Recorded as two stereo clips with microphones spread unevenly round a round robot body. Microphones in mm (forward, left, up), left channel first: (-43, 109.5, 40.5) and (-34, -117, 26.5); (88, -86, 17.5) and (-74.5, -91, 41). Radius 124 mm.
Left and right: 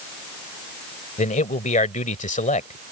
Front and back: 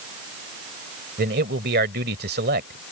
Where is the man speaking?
150° left.